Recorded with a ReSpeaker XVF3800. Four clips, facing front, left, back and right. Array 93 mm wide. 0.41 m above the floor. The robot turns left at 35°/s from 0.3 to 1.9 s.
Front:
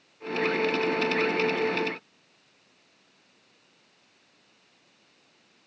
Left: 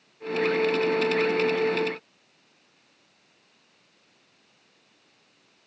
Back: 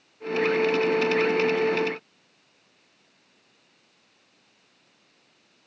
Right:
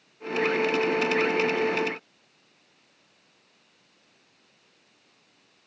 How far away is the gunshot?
No gunshot in this recording.